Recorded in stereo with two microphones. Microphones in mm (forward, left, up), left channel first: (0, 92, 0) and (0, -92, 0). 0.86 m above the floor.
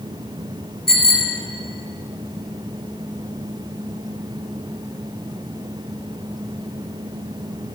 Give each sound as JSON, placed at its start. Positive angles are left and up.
{"t": 0.9, "sound": "a bicycle bell", "side_deg": 65, "distance_m": 5.0}